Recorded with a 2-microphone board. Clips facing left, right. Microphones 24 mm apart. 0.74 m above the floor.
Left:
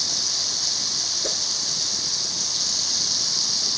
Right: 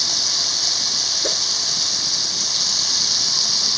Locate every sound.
0.0 s running water: 25° right (ahead or behind)
1.2 s a whoosh: 25° right (ahead or behind)